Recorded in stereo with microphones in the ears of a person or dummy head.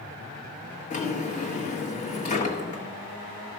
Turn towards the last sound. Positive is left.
turn(degrees=35)  # may be behind; listen again after turning